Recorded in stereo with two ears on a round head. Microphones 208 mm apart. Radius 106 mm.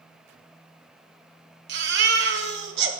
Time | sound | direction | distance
1.7 | a baby crying | 50° right (ahead or behind) | 1.1 m